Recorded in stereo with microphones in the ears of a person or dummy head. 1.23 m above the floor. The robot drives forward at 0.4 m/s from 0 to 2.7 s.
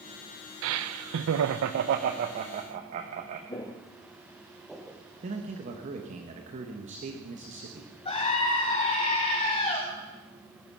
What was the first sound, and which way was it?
Laughter, 75° right (ahead or behind).